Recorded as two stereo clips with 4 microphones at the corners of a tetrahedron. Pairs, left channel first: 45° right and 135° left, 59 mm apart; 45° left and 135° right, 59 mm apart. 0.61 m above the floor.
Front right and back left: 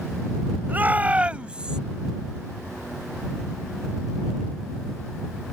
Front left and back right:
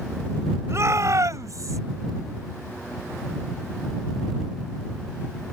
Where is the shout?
170° right; by 1.8 s 150° right.